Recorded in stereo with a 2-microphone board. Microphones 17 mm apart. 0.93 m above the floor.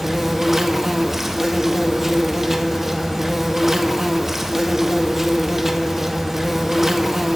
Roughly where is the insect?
Centre.